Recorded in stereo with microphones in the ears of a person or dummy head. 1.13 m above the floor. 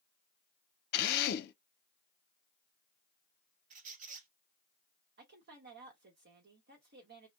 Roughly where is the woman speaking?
Right.